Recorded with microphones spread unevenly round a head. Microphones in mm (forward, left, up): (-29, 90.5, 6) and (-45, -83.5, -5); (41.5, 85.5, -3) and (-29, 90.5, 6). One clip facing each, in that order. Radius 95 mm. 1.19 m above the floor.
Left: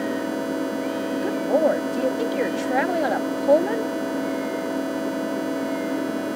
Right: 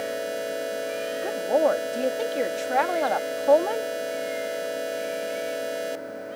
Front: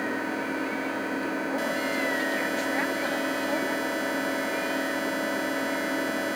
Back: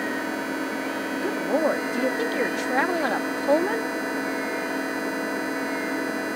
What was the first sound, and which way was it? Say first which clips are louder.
An engine running: left 4 dB, back 2 dB; 95° left.